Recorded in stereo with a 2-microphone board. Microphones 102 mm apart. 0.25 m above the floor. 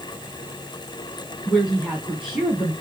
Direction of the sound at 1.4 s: 5° right (ahead or behind).